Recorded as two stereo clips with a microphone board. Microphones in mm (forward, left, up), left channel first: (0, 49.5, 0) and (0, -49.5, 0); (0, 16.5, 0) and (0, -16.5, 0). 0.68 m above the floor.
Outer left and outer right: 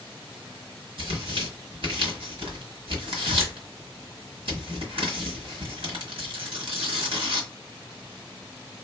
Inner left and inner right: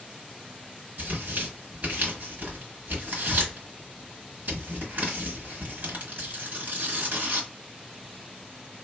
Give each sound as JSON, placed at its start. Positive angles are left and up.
{"t": 1.0, "sound": "tearing paper", "side_deg": -65, "distance_m": 1.3}